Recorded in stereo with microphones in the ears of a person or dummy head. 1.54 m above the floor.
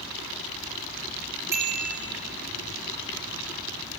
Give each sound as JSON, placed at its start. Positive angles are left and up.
{"t": 1.5, "sound": "a bicycle bell", "side_deg": -10, "distance_m": 3.5}